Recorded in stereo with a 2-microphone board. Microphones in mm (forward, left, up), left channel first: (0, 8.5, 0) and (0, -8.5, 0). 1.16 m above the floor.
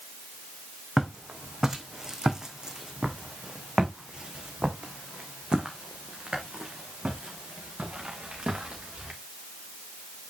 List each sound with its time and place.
1.0 s footsteps: 20° right (ahead or behind), 2.5 m; by 9.1 s 75° right (ahead or behind), 4.5 m